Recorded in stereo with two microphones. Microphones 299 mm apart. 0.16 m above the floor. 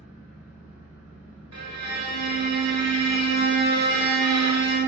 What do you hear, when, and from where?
0.0 s an engine running: 5° right (ahead or behind), 0.8 m
1.5 s a violin: 65° right (ahead or behind), 0.7 m